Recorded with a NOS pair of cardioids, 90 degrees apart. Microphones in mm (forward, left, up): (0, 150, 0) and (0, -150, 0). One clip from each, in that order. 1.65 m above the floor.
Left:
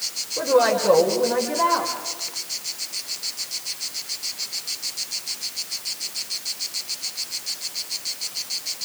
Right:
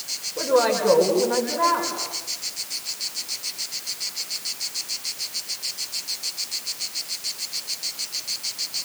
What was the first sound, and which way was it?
A woman speaking, straight ahead.